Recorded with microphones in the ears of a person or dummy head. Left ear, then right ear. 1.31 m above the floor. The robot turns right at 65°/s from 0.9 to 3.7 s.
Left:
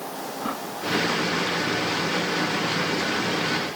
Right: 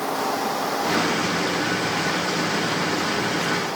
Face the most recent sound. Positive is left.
No sound to turn to.